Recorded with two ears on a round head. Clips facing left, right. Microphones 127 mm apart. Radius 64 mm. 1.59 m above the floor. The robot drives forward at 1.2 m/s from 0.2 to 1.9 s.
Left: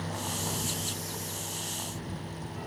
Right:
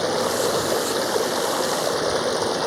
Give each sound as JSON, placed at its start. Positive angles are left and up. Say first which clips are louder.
{"t": 0.0, "sound": "running water", "louder": "right 15 dB", "side_deg": -70}